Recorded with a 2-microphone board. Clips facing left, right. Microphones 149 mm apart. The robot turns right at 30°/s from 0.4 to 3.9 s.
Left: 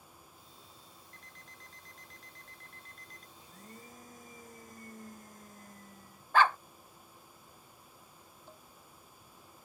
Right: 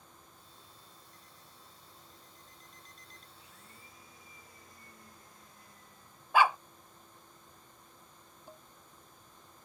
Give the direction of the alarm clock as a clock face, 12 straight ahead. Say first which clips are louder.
Left 1 dB; 10 o'clock.